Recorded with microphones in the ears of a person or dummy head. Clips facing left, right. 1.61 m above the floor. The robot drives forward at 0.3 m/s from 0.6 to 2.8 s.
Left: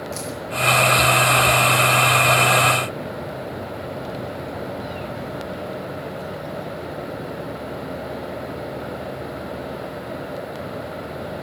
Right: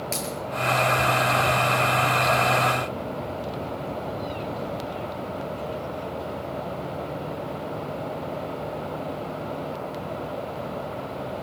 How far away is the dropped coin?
About 10 m.